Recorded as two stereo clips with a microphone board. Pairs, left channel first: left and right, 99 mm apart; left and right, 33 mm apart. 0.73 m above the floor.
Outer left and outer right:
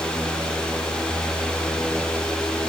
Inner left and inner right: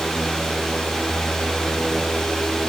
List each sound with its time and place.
Only background noise.